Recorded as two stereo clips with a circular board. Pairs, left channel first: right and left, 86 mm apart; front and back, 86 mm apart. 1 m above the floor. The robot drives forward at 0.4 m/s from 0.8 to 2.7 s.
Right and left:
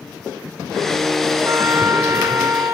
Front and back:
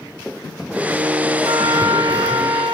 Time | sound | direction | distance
1.4 | a trumpet | 145° left | 2 m